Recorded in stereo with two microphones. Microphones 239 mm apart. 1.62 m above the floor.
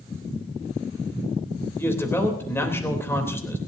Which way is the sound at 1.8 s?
10° left (ahead or behind).